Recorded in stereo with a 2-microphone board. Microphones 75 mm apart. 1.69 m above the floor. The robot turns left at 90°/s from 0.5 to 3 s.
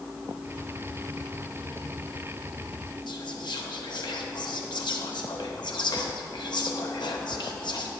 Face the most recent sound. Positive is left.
turn(degrees=75)  # may be behind; listen again after turning